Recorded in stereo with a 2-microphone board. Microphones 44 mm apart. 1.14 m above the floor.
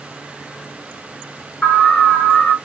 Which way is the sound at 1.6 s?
40° left (ahead or behind).